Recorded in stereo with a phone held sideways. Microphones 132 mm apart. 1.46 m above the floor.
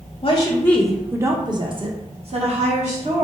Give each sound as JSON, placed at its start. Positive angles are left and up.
{"t": 0.2, "sound": "a woman speaking", "side_deg": 40, "distance_m": 0.5}